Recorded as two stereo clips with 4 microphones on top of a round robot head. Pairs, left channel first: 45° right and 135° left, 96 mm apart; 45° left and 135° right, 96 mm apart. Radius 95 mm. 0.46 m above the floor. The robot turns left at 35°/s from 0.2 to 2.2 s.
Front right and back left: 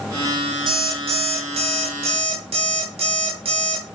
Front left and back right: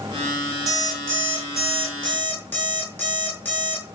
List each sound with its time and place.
0.7 s an alarm clock: 170° left, 4.5 m; by 3.9 s 115° left, 4.5 m